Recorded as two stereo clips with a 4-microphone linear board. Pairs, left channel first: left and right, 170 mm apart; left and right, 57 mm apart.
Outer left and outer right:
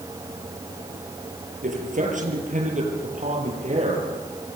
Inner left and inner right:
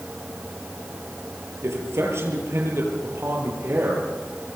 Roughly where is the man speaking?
Right.